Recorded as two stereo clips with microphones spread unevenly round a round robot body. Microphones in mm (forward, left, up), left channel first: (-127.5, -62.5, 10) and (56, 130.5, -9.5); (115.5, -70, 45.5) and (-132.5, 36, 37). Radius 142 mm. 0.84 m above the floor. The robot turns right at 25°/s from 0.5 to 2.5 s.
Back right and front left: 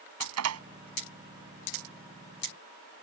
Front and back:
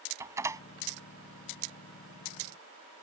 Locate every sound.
0.2 s a door slam: 75° left; by 0.6 s 80° left